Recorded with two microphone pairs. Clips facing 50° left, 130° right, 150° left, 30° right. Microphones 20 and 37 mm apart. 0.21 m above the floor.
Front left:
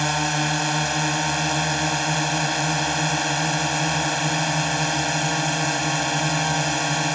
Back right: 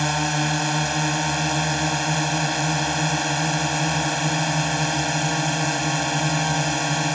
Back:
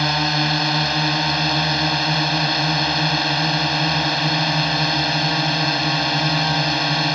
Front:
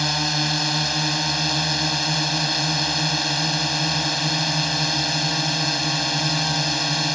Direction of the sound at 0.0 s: 135° left.